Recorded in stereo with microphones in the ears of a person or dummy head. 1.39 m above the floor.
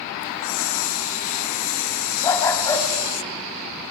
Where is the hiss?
70° left (ahead or behind), 0.9 m.